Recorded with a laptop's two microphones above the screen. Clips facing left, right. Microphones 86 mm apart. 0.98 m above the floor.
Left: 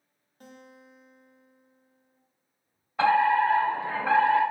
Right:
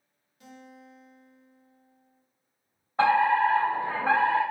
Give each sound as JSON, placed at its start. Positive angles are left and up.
{"t": 0.4, "sound": "a guitar", "side_deg": 45, "distance_m": 0.6}
{"t": 3.0, "sound": "a fire alarm", "side_deg": -30, "distance_m": 1.8}